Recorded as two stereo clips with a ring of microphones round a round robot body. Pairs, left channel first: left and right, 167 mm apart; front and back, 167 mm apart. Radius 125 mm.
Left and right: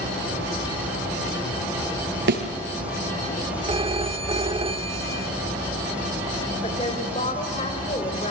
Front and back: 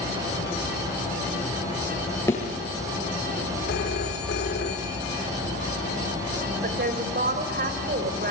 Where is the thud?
80° right, 5 m.